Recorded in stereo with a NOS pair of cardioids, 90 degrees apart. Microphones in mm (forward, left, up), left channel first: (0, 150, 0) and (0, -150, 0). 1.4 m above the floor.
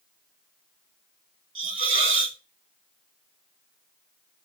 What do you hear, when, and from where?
1.6 s a hiss: 40° right, 1.5 m